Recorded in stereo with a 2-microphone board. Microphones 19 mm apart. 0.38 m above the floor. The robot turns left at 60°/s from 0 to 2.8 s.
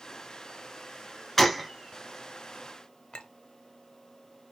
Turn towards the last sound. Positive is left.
turn(degrees=60)  # may be behind; listen again after turning